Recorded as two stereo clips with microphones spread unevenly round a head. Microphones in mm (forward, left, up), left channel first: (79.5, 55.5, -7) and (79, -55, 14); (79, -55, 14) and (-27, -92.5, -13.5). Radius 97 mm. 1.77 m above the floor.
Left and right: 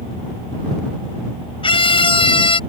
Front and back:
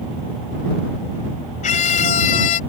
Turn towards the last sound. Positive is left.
turn(degrees=50)